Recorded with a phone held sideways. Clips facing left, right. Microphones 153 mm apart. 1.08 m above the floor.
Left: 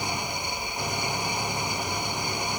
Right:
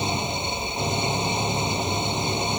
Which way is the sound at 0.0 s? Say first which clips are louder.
Right 5 dB; 25° right (ahead or behind).